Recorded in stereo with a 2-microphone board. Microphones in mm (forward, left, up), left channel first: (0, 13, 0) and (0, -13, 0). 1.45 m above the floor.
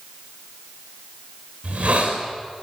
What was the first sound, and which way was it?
A hiss, 55° right (ahead or behind).